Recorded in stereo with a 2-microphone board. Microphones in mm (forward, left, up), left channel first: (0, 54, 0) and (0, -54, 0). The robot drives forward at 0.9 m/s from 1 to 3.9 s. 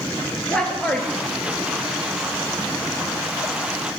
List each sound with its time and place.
0.5 s a man speaking: 10° left (ahead or behind), 3 m; by 1.9 s 5° left (ahead or behind), 3.5 m